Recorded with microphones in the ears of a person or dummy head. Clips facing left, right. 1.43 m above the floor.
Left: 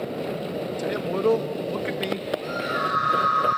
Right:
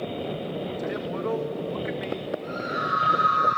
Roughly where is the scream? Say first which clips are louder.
Left 3 dB; left.